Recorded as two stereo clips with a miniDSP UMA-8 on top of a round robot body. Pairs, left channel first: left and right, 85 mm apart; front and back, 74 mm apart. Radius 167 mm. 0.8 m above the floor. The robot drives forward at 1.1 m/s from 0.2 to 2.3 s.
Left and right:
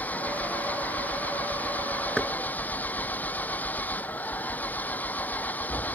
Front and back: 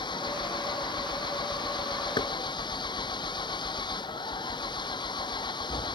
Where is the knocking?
Straight ahead.